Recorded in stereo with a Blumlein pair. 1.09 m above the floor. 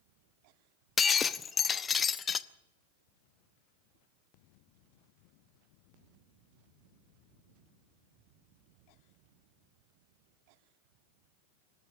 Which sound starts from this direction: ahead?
Breaking glass, at 1.0 s.